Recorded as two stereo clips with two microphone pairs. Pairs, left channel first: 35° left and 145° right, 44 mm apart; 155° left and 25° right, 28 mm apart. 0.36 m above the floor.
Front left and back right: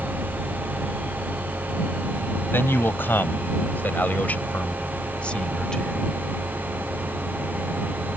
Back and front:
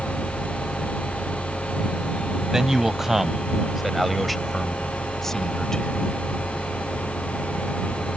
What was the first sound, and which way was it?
A man speaking, 40° left.